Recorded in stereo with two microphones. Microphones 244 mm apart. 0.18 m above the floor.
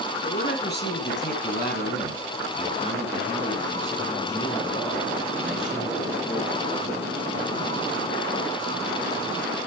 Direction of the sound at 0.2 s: 45° left (ahead or behind).